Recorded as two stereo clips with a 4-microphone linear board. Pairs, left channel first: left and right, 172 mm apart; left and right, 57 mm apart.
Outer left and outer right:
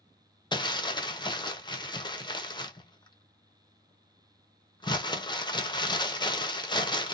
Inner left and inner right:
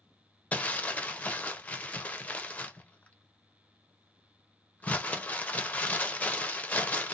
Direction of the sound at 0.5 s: 25° left (ahead or behind).